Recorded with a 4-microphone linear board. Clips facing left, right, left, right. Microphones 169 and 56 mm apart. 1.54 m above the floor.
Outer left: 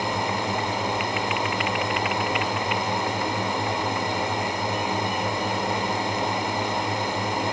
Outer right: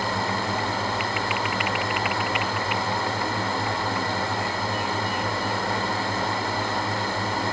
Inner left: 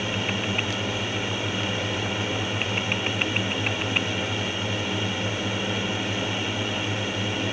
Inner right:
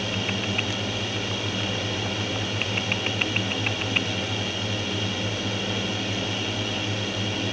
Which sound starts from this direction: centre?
A drone, at 0.0 s.